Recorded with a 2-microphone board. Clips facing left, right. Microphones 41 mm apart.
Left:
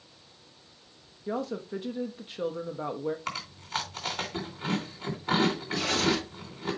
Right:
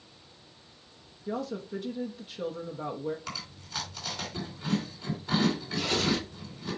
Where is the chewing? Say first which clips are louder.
Left 5 dB; 50° left (ahead or behind), 3 m.